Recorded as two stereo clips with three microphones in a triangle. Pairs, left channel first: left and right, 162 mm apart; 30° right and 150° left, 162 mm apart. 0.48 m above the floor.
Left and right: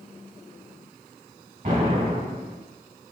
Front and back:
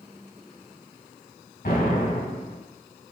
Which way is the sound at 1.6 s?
55° right.